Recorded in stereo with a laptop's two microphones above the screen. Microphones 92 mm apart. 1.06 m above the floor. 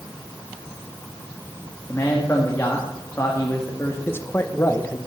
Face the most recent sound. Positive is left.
turn(degrees=25)  # may be behind; listen again after turning